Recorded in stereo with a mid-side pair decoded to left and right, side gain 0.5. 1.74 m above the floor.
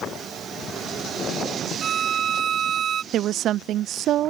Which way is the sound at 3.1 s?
65° right.